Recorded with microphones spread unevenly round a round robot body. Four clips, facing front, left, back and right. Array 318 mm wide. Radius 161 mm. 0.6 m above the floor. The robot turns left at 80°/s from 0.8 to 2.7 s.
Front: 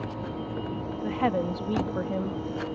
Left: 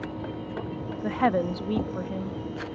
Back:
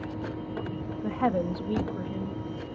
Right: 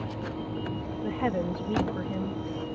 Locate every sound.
1.0 s a woman speaking: 90° left, 1.0 m; by 2.4 s 20° right, 1.0 m